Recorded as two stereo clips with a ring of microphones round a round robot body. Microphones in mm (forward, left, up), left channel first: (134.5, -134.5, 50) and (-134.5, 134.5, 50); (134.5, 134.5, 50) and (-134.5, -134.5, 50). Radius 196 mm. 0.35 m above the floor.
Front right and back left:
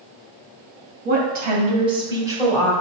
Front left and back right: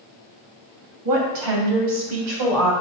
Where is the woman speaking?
165° right, 2.5 m; by 2.7 s 140° right, 2.5 m.